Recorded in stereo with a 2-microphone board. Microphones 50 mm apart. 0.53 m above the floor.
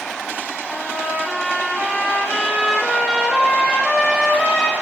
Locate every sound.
0.7 s a trumpet: 5° left (ahead or behind), 5.5 m